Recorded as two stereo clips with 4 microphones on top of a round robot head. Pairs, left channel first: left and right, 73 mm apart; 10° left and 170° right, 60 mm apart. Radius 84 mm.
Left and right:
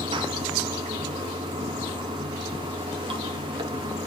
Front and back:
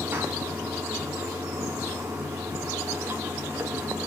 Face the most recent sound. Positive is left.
turn(degrees=-100)